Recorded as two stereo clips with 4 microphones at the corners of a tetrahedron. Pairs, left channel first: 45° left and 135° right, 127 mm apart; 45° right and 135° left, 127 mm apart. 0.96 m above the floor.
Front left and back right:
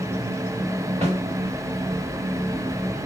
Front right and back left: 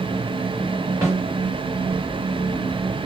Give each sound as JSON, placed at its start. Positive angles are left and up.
{"t": 1.0, "sound": "a snare drum", "azimuth_deg": -160, "distance_m": 2.0}